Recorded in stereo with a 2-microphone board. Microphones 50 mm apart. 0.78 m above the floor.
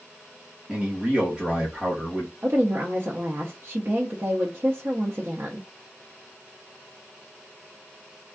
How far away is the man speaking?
About 1.0 m.